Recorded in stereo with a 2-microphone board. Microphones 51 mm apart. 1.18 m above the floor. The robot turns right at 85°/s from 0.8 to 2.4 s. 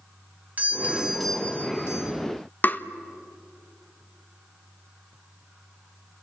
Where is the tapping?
40° left (ahead or behind), 1.3 m.